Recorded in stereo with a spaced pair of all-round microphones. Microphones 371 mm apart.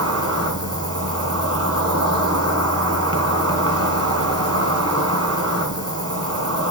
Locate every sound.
0.0 s an insect: 40° right (ahead or behind), 1.8 m